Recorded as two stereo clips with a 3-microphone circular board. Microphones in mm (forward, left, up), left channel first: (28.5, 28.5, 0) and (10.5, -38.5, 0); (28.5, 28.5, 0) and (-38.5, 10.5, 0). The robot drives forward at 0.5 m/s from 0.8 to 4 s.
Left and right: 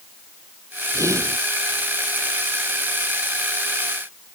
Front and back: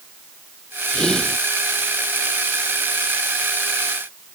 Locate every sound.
0.9 s whispering: 65° right